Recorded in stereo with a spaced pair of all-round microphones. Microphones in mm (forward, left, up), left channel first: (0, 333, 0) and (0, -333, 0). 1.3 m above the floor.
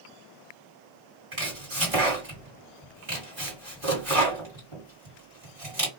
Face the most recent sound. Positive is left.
turn(degrees=-50)  # may be behind; listen again after turning